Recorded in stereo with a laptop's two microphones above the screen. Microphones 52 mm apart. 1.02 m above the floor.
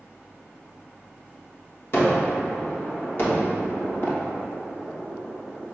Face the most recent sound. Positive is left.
turn(degrees=50)  # may be behind; listen again after turning